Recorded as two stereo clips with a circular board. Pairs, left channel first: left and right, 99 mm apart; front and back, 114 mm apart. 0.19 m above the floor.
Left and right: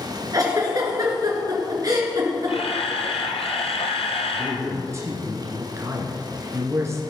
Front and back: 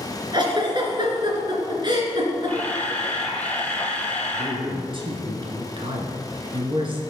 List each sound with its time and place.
0.3 s a giggle: 135° right, 3 m
2.5 s a camera shutter: 75° left, 1.5 m
4.3 s a man speaking: 145° right, 2 m